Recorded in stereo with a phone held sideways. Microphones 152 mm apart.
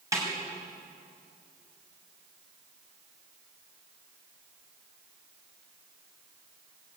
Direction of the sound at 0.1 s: 20° right (ahead or behind).